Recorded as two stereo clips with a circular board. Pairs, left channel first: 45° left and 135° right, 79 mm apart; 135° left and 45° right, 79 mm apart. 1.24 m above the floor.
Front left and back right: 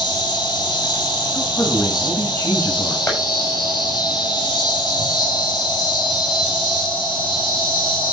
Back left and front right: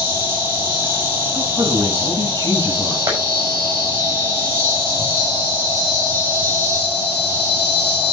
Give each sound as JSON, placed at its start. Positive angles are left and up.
{"t": 0.0, "sound": "an insect", "azimuth_deg": 15, "distance_m": 6.5}
{"t": 1.3, "sound": "a man speaking", "azimuth_deg": -10, "distance_m": 7.0}
{"t": 3.1, "sound": "tapping", "azimuth_deg": -5, "distance_m": 6.0}